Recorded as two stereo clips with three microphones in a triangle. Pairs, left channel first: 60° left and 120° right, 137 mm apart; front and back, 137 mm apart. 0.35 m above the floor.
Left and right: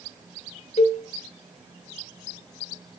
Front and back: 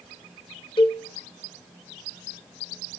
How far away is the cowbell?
About 1.7 m.